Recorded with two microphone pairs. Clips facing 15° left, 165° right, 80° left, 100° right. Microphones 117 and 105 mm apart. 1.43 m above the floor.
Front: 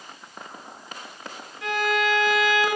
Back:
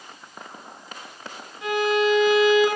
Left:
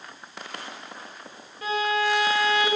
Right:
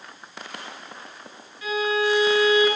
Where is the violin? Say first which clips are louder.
Back 4 dB, right 1 dB; 125° left, 1.2 m.